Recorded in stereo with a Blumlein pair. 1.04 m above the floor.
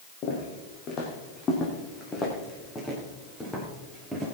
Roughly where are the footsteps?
Ahead left.